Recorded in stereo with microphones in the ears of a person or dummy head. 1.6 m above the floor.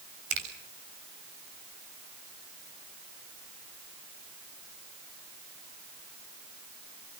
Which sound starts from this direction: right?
A finger snap, at 0.3 s.